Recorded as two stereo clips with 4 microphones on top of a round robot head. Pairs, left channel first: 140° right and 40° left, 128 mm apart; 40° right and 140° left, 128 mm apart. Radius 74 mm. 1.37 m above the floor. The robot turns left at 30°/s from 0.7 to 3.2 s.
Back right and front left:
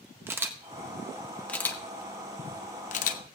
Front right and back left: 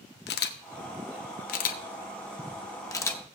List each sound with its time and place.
0.3 s a camera shutter: 40° right, 0.8 m; by 3.2 s 115° right, 0.8 m